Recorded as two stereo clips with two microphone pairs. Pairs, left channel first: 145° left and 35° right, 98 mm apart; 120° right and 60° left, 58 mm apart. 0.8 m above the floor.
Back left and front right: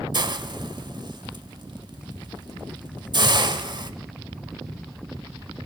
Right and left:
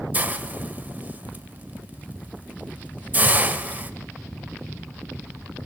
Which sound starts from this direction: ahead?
A hiss, at 0.1 s.